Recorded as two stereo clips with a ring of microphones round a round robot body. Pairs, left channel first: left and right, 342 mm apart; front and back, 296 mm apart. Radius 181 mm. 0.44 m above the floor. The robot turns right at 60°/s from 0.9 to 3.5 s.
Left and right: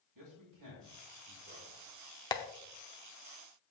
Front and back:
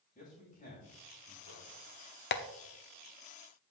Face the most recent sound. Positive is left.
turn(degrees=90)